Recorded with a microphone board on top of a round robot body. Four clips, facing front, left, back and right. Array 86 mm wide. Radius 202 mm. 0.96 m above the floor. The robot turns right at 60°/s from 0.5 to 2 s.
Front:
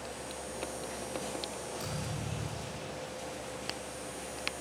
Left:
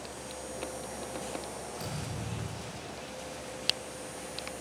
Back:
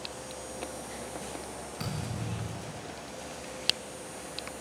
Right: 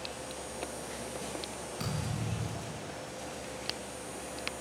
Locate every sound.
1.8 s a thud: 145° right, 5.5 m; by 2.9 s 135° right, 5.5 m